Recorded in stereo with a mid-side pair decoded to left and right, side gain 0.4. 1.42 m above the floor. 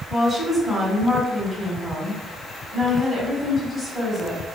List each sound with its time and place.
0.1 s a woman speaking: 5° right, 1.8 m